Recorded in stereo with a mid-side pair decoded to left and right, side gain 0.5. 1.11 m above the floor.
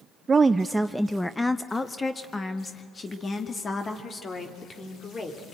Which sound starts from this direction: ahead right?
A woman speaking, at 0.3 s.